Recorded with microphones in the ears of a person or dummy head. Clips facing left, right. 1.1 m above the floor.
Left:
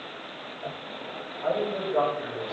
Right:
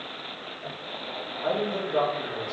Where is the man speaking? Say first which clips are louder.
Left 1 dB; 25° right (ahead or behind), 1.8 m.